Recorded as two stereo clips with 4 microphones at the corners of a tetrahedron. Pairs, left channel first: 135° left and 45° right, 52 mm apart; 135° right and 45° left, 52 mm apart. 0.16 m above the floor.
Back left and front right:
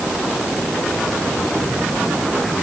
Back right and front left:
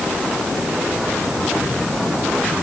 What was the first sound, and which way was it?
Only background noise.